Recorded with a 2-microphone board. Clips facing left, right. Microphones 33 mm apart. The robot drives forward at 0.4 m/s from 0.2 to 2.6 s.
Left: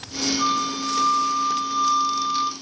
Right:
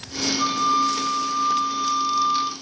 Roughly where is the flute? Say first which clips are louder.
Right 5 dB; centre.